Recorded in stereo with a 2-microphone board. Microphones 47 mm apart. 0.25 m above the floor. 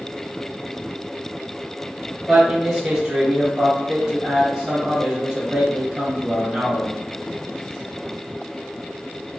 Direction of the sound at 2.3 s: 15° right (ahead or behind).